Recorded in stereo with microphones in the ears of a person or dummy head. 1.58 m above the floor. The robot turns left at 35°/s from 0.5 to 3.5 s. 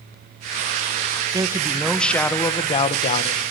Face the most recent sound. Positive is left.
turn(degrees=120)